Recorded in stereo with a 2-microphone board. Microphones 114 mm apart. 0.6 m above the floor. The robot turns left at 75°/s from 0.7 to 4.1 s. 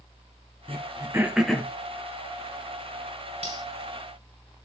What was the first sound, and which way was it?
Throat clearing, 55° right (ahead or behind).